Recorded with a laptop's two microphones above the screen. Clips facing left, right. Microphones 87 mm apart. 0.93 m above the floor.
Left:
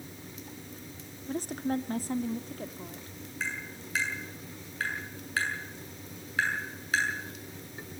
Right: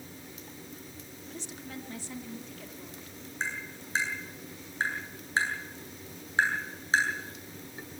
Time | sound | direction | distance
1.3 | a woman speaking | 40° left (ahead or behind) | 0.7 m
3.4 | tapping | 25° right (ahead or behind) | 7 m